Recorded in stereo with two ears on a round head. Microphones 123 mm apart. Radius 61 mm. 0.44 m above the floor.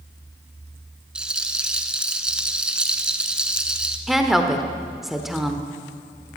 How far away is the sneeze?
No sneeze in this recording.